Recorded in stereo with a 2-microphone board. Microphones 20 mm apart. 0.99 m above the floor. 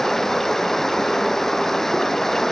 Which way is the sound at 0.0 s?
15° left (ahead or behind).